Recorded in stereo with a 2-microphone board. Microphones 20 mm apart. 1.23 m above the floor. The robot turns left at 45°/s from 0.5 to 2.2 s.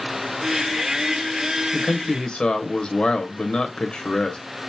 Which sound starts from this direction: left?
A man speaking, at 1.7 s.